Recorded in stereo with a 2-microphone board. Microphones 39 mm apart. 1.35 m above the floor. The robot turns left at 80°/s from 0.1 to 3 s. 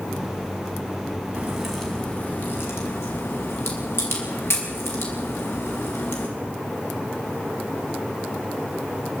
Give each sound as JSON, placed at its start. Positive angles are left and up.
{"t": 1.4, "sound": "a crack", "side_deg": -30, "distance_m": 6.0}